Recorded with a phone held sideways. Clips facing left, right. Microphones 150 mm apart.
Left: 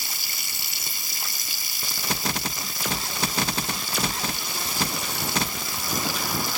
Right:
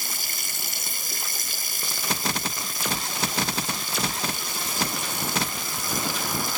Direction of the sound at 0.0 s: 45° right (ahead or behind).